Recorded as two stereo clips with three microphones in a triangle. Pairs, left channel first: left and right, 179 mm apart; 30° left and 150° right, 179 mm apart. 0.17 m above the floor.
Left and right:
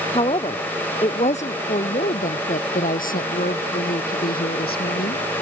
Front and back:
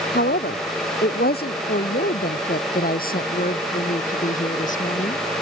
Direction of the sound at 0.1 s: 35° left.